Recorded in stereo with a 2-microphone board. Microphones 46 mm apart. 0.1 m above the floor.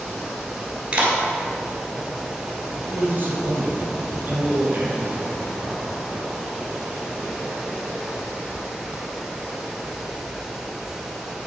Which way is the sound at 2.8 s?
45° right (ahead or behind).